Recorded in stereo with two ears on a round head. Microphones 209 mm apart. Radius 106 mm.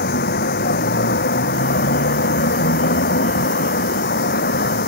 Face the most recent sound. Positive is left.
turn(degrees=45)  # may be behind; listen again after turning